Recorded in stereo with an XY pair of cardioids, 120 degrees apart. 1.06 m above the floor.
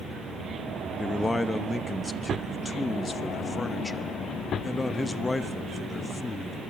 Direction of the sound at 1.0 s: 20° left.